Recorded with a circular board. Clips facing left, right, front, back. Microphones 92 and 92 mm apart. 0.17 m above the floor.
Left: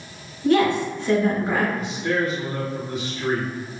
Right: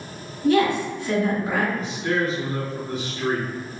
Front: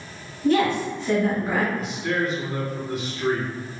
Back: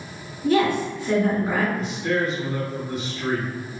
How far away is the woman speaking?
About 1.5 m.